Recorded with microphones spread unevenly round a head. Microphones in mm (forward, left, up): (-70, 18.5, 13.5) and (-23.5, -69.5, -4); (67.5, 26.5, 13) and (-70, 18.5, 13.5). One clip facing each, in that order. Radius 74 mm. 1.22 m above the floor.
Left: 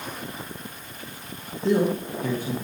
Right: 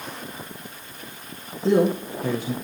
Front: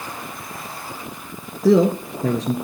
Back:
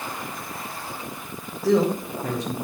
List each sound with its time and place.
1.6 s a man speaking: 15° left, 1.5 m